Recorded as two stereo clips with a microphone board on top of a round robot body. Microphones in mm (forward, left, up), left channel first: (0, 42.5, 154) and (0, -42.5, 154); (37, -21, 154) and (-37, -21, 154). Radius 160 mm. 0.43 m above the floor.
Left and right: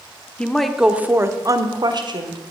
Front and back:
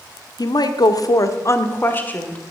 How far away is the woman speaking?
About 1.4 m.